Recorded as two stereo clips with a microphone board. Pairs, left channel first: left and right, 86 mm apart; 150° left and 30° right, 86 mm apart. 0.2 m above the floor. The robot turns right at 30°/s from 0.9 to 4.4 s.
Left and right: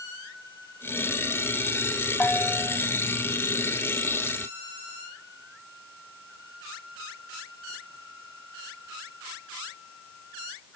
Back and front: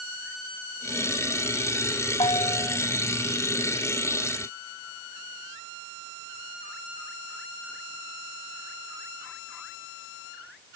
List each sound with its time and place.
2.2 s a bell: 165° left; by 2.8 s straight behind